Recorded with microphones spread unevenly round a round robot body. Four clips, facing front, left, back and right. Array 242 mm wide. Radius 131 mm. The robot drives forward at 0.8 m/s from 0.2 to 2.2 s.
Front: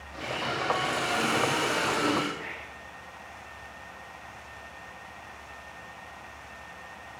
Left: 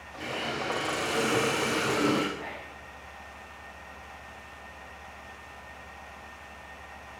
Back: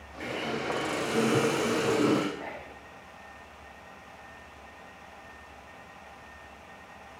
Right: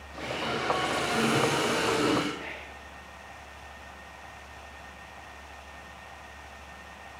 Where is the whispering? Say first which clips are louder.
Left 1 dB, back 1 dB; 175° left, 0.9 m.